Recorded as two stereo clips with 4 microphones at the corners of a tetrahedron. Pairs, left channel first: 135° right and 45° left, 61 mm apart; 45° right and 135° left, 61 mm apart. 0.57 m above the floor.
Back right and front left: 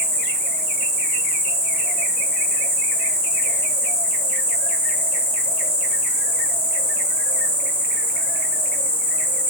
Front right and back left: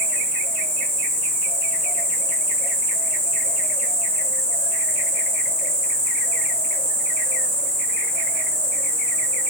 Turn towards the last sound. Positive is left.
turn(degrees=175)